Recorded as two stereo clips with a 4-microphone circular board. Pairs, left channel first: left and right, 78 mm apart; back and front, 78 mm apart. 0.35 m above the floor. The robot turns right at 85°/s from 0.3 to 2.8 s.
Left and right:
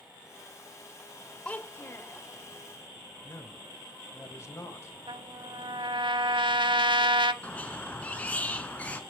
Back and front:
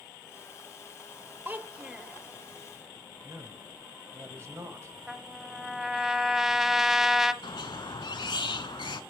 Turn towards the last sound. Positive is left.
turn(degrees=160)